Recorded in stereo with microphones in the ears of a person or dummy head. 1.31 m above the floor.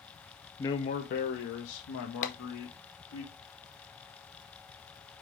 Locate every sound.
0.6 s a man speaking: 15° left (ahead or behind), 0.5 m; by 3.2 s 85° left, 2.5 m
2.2 s tapping: 40° left (ahead or behind), 1.2 m